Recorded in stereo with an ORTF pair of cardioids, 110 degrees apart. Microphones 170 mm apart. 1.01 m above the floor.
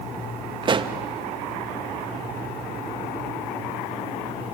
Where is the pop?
30° right, 0.8 m.